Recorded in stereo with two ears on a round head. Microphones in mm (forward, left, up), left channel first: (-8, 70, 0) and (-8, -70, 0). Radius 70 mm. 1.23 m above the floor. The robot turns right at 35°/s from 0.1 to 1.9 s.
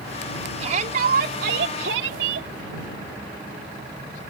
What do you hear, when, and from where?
0.6 s a shout: 135° right; by 2.5 s 90° right